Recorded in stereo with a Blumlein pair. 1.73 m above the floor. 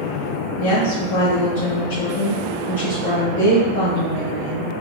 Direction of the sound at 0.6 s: 40° left.